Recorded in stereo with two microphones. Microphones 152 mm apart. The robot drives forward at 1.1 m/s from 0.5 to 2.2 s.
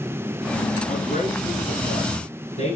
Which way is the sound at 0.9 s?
60° left (ahead or behind).